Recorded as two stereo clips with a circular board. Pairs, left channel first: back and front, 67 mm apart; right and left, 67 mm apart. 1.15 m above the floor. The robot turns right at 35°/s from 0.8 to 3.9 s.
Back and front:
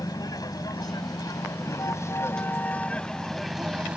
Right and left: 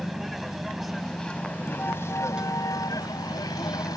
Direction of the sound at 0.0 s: Straight behind.